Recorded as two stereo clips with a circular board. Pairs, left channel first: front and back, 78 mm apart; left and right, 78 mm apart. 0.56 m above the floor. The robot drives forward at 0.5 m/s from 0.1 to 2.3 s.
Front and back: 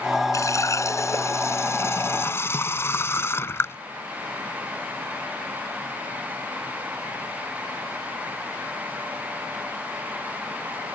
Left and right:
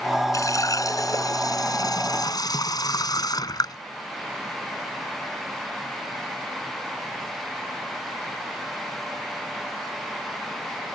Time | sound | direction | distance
0.3 | a running tap | 45° left | ?